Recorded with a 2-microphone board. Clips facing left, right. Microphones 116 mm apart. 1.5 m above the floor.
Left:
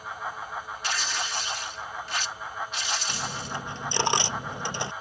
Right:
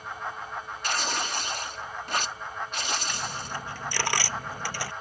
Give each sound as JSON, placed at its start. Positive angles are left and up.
{"t": 0.8, "sound": "tearing paper", "side_deg": -50}
{"t": 3.1, "sound": "a dropped coin", "side_deg": 20}